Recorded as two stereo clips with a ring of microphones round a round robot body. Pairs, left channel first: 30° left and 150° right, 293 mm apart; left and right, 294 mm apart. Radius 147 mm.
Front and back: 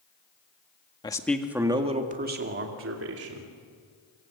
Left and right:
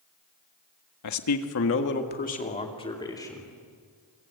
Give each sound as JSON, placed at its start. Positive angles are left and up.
{"t": 1.0, "sound": "a man speaking", "azimuth_deg": 105, "distance_m": 1.8}